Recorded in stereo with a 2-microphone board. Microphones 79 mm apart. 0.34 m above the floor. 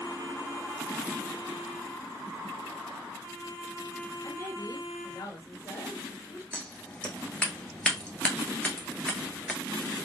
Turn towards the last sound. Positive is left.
turn(degrees=15)  # may be behind; listen again after turning